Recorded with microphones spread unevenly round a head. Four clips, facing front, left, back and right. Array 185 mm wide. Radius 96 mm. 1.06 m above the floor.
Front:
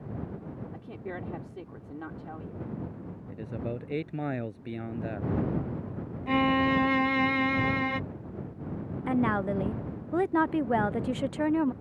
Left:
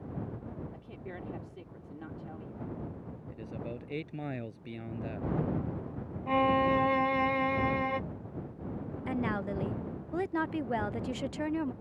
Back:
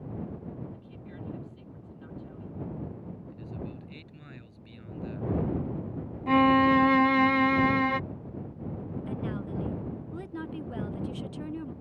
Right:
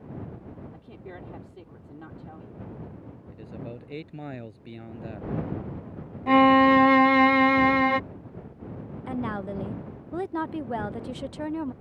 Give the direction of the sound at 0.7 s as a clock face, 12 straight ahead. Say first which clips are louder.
Right 1 dB, front 7 dB; 12 o'clock.